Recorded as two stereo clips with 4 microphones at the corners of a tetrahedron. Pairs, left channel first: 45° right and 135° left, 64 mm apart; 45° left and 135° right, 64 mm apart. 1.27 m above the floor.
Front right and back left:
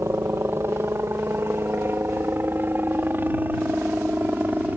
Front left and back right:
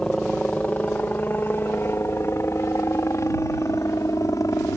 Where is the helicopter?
115° left; by 4.8 s 75° left.